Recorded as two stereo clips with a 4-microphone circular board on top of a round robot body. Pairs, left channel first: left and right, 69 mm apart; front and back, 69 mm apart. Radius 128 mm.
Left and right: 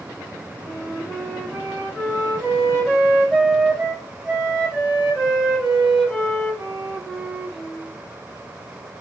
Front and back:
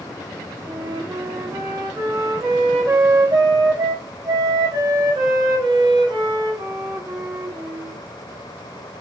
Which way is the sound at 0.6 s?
175° right.